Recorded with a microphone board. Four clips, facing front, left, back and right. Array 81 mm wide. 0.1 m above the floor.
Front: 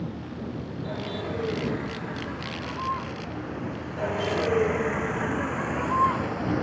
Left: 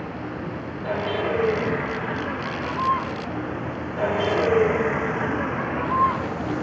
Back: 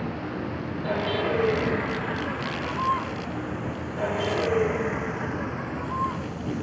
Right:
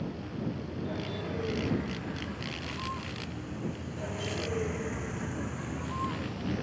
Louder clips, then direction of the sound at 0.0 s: Left 5 dB, back 4 dB; 115° left.